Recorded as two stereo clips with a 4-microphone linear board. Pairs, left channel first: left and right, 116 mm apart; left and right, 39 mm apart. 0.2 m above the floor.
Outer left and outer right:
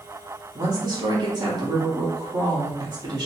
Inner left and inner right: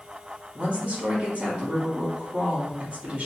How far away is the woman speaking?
About 1.3 m.